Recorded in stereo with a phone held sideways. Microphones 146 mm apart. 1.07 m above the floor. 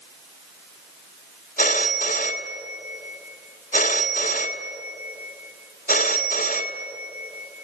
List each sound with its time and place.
1.6 s a phone ringing: 75° left (ahead or behind), 1.5 m